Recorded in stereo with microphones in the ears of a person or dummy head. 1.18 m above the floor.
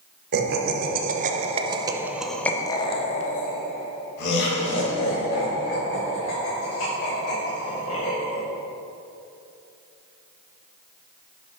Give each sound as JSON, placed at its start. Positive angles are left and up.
{"t": 0.3, "sound": "laughter", "side_deg": -65, "distance_m": 1.4}